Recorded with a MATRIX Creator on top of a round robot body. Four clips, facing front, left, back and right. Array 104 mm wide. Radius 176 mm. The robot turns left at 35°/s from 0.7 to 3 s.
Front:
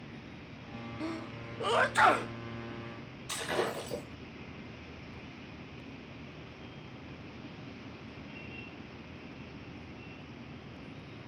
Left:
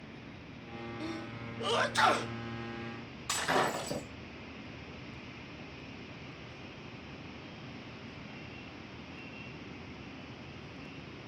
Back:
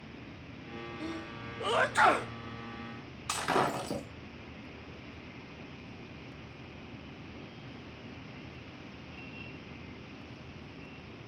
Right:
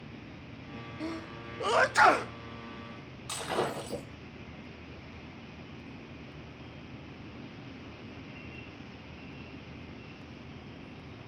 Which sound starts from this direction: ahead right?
A sneeze, at 1.0 s.